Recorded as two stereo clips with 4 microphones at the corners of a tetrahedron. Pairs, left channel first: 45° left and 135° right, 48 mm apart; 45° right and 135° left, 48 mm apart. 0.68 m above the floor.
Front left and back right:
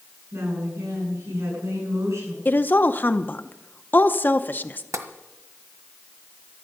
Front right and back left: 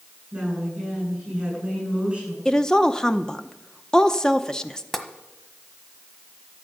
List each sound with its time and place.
0.3 s a woman speaking: 155° right, 9.5 m
2.5 s a woman speaking: 25° left, 0.7 m
4.9 s tapping: 130° right, 1.4 m